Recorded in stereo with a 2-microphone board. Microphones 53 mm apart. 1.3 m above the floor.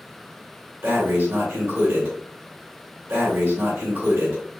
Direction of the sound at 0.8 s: 45° right (ahead or behind).